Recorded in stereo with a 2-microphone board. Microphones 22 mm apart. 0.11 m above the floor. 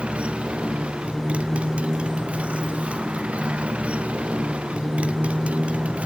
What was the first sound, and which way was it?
A motorcycle, 60° right (ahead or behind).